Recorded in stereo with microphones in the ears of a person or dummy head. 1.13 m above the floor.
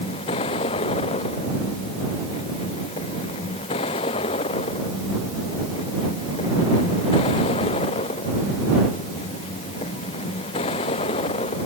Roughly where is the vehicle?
Left.